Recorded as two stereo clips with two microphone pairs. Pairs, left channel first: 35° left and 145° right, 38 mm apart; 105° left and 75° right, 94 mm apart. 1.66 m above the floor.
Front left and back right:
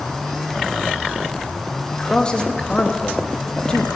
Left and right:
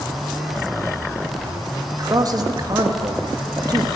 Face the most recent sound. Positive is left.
turn(degrees=-30)